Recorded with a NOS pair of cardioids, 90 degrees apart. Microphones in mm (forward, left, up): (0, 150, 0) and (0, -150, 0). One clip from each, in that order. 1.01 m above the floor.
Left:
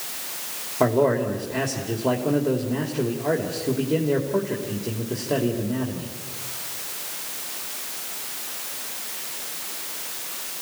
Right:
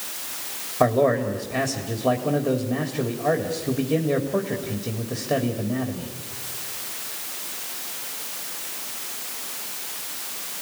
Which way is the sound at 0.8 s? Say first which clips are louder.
Right 1 dB; 5° right.